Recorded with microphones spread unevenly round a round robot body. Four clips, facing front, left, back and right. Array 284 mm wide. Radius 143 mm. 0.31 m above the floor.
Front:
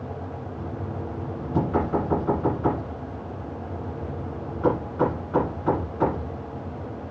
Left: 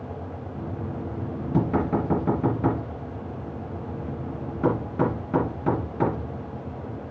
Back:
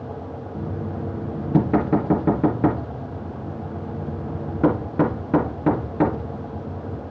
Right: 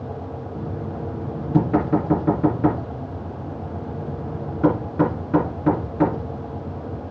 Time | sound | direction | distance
0.6 | knocking | straight behind | 3.5 m